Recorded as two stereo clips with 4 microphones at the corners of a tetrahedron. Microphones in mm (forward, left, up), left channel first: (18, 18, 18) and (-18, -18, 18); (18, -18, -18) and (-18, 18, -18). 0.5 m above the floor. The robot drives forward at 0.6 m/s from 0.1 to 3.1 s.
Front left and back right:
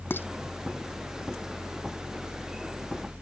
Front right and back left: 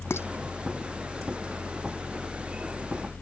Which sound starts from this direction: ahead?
Dishes clattering, at 0.1 s.